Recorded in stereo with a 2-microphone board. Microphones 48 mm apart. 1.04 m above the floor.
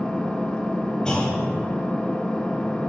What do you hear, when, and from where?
0.0 s an engine running: 20° left (ahead or behind), 1.0 m
1.1 s a clunk: 15° left (ahead or behind), 1.6 m